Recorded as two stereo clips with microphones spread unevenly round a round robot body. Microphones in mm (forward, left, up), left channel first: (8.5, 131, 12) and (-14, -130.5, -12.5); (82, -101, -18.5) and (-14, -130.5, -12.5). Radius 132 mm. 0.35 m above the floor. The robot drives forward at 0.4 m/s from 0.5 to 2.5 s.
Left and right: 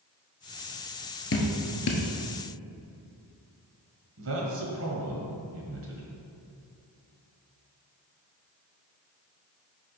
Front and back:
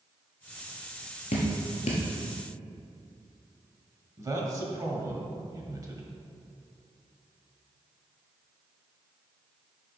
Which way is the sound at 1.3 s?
45° left.